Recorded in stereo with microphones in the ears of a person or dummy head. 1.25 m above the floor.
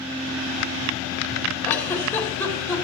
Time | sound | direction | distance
1.6 | a giggle | 10° left (ahead or behind) | 3.5 m